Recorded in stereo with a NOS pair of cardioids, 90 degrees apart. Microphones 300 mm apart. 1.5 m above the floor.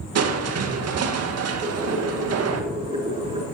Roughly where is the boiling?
Ahead.